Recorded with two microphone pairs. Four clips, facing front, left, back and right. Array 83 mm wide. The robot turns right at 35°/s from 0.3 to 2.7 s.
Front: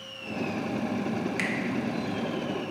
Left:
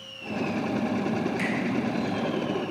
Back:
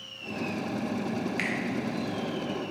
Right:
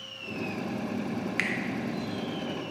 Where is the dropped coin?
No dropped coin in this recording.